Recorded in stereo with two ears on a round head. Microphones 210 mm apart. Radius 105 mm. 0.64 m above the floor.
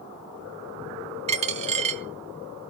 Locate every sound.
1.3 s a dropped coin: 25° right (ahead or behind), 0.7 m